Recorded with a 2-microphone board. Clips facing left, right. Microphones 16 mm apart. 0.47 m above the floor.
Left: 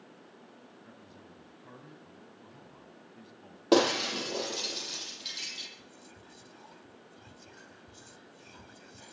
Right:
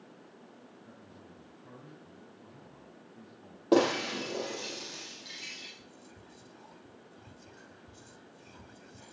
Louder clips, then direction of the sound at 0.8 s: Even; 50° left (ahead or behind).